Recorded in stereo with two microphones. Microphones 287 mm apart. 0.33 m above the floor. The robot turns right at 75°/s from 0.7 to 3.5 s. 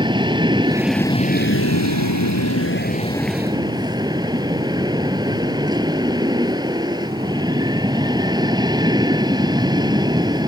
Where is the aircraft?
15° right; by 10.5 s 165° right.